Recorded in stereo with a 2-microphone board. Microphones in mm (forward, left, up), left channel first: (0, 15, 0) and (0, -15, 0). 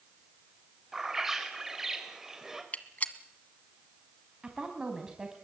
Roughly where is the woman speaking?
Right.